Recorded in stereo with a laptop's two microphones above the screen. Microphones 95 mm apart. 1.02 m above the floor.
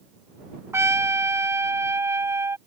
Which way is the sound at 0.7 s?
30° right (ahead or behind).